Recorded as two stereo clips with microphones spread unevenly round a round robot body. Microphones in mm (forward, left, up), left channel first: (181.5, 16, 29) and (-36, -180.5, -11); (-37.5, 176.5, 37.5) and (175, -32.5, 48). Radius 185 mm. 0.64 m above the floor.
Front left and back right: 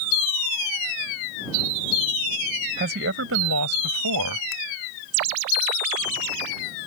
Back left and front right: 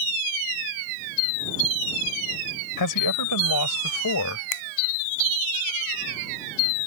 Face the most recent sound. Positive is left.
turn(degrees=140)